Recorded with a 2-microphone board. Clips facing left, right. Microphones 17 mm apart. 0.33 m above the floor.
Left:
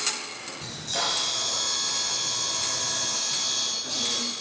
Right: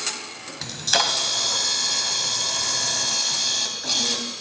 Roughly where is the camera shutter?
Right.